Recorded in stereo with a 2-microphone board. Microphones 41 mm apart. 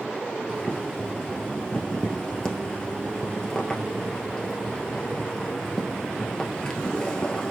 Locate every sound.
0.5 s boiling: 20° left (ahead or behind), 1.3 m